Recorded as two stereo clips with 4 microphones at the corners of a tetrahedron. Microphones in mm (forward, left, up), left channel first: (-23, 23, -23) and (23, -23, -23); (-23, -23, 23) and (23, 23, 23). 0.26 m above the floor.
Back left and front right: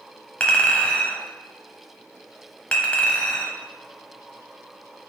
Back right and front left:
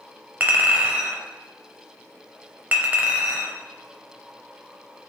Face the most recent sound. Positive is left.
turn(degrees=85)